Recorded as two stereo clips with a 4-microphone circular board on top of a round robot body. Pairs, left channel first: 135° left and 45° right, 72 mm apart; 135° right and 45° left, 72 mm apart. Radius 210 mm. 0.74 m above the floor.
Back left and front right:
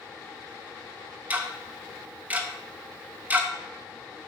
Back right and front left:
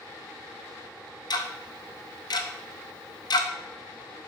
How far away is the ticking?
About 0.8 m.